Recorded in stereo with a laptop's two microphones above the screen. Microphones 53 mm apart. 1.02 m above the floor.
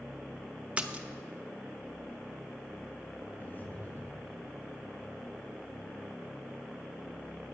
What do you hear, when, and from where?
0.8 s a splash: 20° right (ahead or behind), 0.8 m
3.4 s breathing: 35° left (ahead or behind), 1.4 m